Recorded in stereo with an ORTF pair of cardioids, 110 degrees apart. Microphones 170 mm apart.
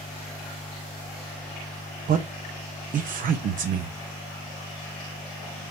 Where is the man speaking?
50° right, 0.8 m.